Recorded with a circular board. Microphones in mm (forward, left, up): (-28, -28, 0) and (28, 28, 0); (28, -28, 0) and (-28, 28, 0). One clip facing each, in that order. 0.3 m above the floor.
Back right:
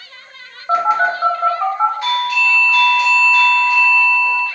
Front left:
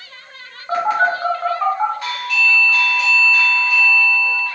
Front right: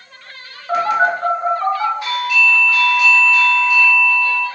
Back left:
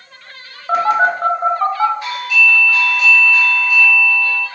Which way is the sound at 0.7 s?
160° left.